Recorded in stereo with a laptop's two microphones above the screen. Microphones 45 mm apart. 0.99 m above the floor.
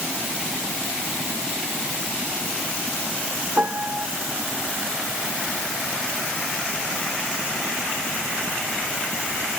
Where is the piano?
45° right (ahead or behind).